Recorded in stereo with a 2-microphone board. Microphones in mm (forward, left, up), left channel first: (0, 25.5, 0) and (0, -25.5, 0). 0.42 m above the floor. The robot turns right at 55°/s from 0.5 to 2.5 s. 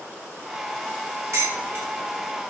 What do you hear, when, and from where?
1.3 s dishes clattering: 65° right (ahead or behind), 1.3 m; by 1.9 s 40° right (ahead or behind), 1.3 m